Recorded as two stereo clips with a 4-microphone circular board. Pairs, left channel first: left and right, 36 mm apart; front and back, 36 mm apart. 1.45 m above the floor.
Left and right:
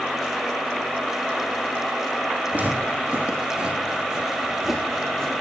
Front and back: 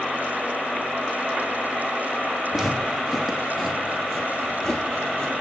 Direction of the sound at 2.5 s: 105° right.